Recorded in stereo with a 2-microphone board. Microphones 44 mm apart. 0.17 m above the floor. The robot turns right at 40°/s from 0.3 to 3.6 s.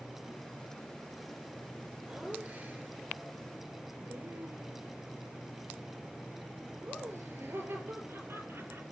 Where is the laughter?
20° right (ahead or behind), 3.5 m; by 8.8 s 70° right (ahead or behind), 3.5 m.